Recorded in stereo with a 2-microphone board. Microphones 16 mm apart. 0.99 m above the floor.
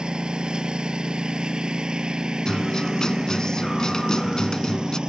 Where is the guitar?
60° left (ahead or behind).